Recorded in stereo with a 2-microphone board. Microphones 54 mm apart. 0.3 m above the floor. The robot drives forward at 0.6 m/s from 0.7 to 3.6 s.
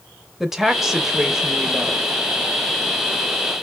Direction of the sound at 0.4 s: 5° right (ahead or behind).